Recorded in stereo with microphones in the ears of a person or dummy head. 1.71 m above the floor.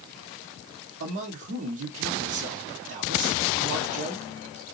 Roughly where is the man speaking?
Right.